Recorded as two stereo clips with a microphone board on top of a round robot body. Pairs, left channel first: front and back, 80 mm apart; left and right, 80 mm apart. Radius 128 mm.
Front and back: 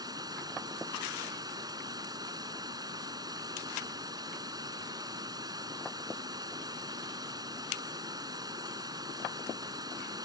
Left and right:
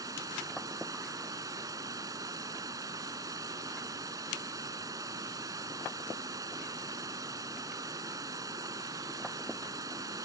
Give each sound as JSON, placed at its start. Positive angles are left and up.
{"t": 0.0, "sound": "running water", "azimuth_deg": -140}